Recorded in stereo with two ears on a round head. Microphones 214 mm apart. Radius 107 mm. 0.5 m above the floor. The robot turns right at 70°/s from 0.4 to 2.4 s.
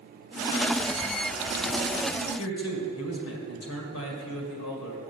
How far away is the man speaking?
About 2 m.